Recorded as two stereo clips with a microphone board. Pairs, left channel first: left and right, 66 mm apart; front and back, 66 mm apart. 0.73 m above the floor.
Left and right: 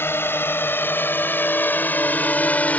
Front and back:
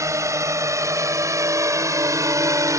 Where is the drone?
145° left; by 2.8 s 155° left.